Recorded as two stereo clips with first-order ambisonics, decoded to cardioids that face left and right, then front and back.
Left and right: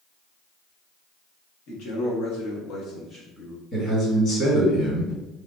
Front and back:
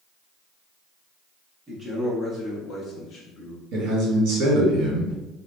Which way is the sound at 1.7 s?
95° left.